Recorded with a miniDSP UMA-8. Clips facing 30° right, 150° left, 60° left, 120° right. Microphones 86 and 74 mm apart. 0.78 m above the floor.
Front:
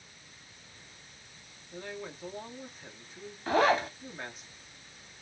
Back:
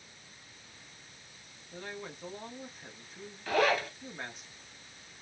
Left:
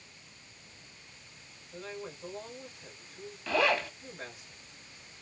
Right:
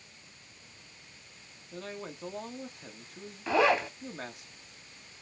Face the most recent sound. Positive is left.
turn(degrees=-65)